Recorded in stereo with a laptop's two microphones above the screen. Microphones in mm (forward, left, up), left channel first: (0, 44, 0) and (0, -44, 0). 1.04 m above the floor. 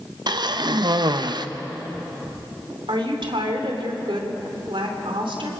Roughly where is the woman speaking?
Right.